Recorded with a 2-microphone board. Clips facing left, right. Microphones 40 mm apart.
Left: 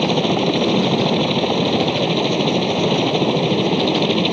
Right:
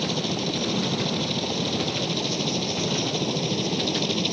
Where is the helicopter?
40° left (ahead or behind); by 4.3 s 35° left (ahead or behind).